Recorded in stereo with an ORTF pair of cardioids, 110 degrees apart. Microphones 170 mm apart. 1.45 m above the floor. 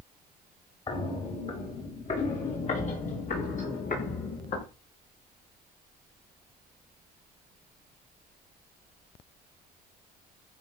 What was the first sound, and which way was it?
Footsteps, 35° left.